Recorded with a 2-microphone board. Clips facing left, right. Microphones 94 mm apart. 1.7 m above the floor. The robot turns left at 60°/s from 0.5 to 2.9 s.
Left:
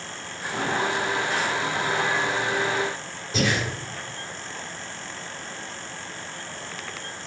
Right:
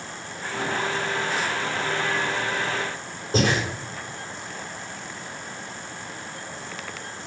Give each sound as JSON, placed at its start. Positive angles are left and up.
{"t": 3.3, "sound": "breathing", "side_deg": -40, "distance_m": 2.0}